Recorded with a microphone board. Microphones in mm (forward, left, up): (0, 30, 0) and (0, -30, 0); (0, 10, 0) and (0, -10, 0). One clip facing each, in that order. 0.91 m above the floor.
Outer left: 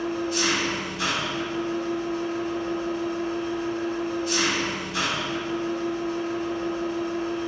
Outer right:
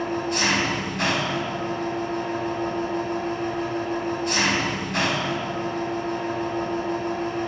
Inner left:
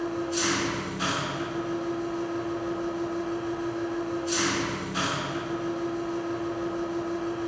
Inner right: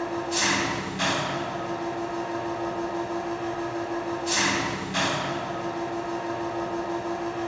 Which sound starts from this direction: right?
An engine running, at 0.0 s.